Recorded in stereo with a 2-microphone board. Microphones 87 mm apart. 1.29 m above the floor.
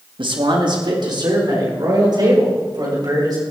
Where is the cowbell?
No cowbell in this recording.